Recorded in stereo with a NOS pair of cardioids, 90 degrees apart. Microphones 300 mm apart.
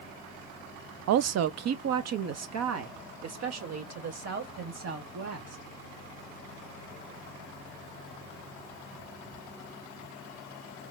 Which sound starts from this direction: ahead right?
A woman speaking, at 1.1 s.